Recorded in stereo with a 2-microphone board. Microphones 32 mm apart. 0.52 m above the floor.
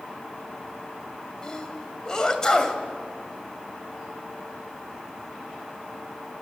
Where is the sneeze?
20° left (ahead or behind), 2.5 m.